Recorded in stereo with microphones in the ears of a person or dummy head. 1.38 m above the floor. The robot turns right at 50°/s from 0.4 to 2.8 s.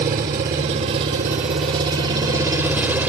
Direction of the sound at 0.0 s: 15° right (ahead or behind).